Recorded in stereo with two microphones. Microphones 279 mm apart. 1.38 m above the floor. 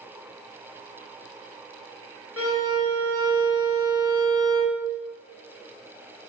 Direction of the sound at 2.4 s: 50° left (ahead or behind).